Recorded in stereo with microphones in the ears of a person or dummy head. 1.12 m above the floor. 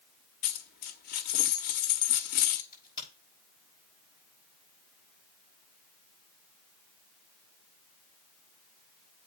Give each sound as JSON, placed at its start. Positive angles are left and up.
{"t": 0.4, "sound": "a dropped coin", "side_deg": 45, "distance_m": 0.8}
{"t": 2.7, "sound": "a crack", "side_deg": 25, "distance_m": 7.0}